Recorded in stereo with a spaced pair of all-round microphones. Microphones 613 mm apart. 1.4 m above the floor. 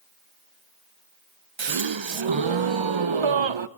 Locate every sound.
1.6 s a gasp: 50° right (ahead or behind), 0.7 m